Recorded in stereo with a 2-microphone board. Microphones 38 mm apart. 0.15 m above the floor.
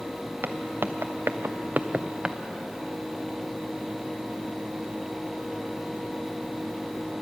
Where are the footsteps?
65° right (ahead or behind), 1.2 m; by 2.4 s 15° right (ahead or behind), 1.0 m.